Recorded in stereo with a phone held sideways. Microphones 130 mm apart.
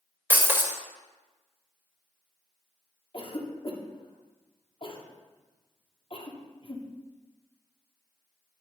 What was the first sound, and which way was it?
Breaking glass, 15° right (ahead or behind).